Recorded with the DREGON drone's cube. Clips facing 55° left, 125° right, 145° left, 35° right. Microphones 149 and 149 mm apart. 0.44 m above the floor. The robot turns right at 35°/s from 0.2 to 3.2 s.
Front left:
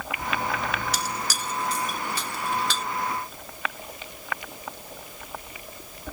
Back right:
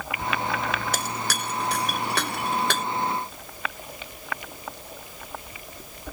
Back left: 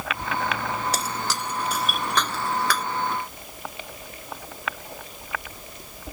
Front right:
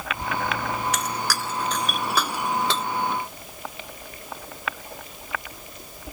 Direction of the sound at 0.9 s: 160° right.